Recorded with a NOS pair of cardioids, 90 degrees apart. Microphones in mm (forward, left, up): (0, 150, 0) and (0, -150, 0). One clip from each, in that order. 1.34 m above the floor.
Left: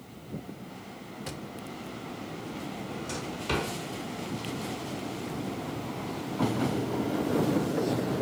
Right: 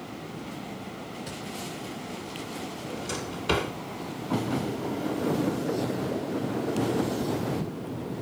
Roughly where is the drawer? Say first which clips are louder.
Right 4 dB; ahead right.